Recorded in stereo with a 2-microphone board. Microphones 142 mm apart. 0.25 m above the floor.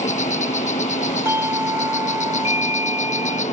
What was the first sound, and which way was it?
An insect, 60° left (ahead or behind).